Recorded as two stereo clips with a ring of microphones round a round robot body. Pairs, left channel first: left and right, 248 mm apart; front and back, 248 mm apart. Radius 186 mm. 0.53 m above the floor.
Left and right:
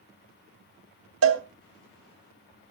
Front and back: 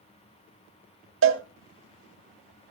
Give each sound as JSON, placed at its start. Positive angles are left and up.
{"t": 1.2, "sound": "a cowbell", "azimuth_deg": -135, "distance_m": 1.3}